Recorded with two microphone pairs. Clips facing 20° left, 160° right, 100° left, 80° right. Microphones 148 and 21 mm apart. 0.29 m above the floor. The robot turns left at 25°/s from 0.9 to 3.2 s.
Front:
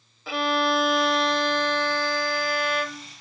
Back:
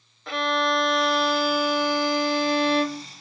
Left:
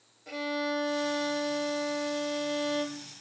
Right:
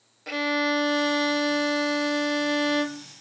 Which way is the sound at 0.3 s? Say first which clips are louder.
Front 1 dB, right 7 dB; 65° right.